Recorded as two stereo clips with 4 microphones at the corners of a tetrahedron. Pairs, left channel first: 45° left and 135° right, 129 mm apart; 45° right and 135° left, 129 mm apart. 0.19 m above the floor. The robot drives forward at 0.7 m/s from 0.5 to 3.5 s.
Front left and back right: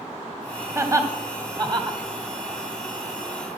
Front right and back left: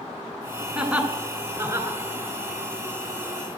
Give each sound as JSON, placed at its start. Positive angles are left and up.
{"t": 0.8, "sound": "laughter", "azimuth_deg": -150, "distance_m": 1.2}